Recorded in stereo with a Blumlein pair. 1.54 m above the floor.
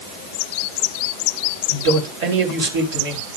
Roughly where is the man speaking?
Ahead right.